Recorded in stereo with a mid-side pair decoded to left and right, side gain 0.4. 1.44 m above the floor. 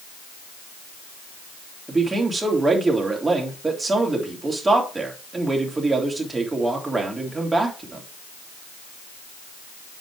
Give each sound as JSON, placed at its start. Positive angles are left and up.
{"t": 1.9, "sound": "a man speaking", "azimuth_deg": -25, "distance_m": 3.5}